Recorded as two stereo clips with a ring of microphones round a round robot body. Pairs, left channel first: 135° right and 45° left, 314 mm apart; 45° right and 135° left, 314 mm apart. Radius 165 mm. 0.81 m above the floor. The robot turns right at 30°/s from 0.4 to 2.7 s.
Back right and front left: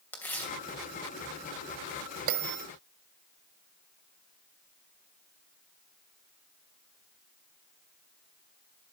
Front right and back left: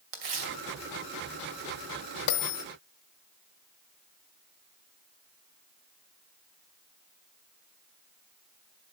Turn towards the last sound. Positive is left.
turn(degrees=-5)